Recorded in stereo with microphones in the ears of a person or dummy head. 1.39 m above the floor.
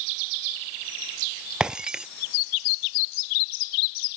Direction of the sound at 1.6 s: 5° right (ahead or behind).